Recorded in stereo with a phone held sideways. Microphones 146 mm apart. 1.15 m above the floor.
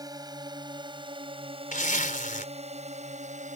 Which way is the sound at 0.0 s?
25° right (ahead or behind).